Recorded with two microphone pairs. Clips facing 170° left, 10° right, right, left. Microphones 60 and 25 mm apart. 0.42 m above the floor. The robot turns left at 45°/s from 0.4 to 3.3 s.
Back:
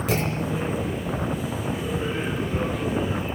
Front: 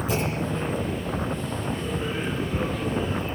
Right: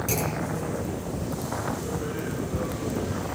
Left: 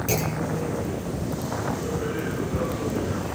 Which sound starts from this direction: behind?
A clunk, at 0.1 s.